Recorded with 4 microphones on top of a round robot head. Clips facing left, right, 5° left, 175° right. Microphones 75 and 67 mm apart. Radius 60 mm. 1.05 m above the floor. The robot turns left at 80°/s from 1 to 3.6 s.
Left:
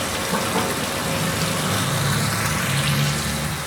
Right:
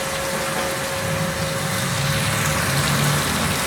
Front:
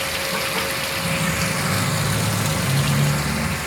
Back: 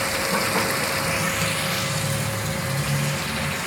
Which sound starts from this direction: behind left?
Running water, at 0.0 s.